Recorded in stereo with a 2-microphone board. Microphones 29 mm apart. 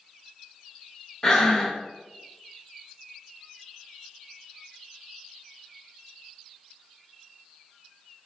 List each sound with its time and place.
1.2 s breathing: 20° left (ahead or behind), 0.5 m